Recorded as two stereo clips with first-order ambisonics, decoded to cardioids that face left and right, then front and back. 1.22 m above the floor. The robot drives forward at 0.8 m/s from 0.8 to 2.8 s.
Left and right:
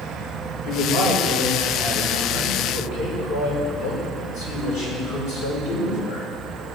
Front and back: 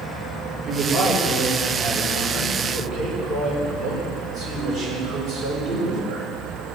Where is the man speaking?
115° left, 5.5 m; by 6.3 s 125° left, 6 m.